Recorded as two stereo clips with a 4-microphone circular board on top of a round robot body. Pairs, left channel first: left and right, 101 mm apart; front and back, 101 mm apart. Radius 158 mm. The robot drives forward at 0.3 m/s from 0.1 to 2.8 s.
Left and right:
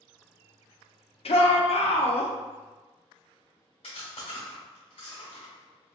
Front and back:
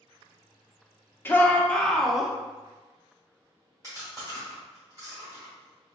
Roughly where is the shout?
Left.